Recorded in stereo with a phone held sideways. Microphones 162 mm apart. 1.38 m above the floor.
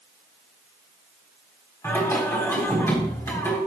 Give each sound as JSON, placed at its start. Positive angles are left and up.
{"t": 1.8, "sound": "singing", "side_deg": 15, "distance_m": 4.5}